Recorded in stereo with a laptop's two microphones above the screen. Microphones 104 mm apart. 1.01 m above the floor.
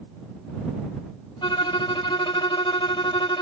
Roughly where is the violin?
Left.